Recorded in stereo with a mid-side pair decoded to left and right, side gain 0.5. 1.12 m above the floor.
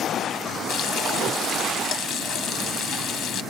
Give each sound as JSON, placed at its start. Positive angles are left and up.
{"t": 0.7, "sound": "frying", "azimuth_deg": 65, "distance_m": 1.2}